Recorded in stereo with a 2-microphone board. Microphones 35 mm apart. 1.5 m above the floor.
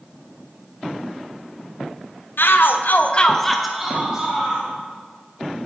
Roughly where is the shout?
Left.